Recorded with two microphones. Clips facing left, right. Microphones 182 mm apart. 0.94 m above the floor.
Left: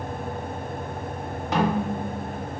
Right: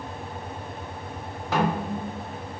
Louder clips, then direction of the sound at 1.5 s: Left 2 dB; 20° left (ahead or behind).